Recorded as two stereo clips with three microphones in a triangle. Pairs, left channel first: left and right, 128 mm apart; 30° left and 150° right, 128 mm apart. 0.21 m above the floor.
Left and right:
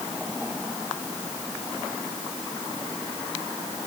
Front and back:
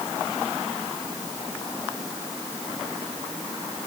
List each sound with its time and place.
Only background noise.